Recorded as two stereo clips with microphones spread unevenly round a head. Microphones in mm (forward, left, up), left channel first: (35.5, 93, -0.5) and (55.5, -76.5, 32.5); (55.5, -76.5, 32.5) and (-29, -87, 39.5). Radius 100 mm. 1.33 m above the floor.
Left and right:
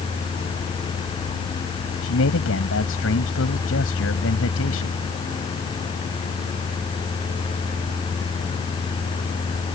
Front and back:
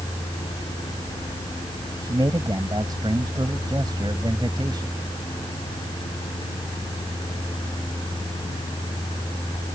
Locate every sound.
2.0 s a man speaking: 120° left